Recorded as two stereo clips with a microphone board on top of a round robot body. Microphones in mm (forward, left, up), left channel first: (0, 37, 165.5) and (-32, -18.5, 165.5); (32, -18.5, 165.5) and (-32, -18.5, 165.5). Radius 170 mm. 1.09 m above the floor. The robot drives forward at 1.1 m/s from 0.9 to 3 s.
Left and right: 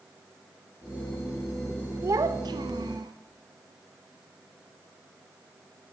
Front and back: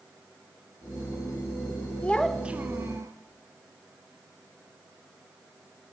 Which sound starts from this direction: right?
A child speaking, at 2.0 s.